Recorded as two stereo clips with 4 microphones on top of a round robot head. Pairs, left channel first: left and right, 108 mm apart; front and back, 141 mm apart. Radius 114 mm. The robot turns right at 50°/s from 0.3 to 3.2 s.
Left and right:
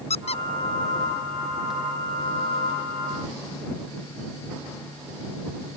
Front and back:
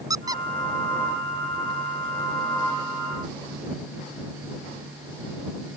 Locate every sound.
0.1 s a squeak: 115° left; by 1.7 s 175° right